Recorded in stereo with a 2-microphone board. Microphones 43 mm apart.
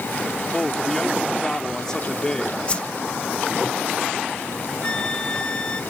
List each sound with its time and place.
0.5 s a man speaking: 15° left (ahead or behind)
2.7 s a whoosh: 30° left (ahead or behind)
4.8 s a flute: 25° left (ahead or behind)